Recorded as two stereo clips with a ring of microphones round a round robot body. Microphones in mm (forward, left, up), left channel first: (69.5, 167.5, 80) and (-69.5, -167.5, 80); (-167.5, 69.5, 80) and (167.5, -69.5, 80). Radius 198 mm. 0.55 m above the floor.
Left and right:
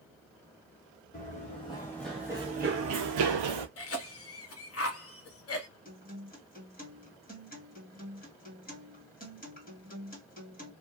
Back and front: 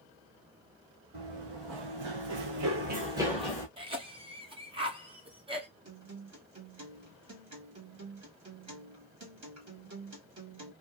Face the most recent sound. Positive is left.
turn(degrees=5)